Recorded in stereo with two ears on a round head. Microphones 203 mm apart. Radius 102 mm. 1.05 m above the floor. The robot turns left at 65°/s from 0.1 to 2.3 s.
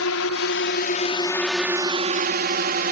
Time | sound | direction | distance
0.0 | a drone | 70° left (ahead or behind) | ?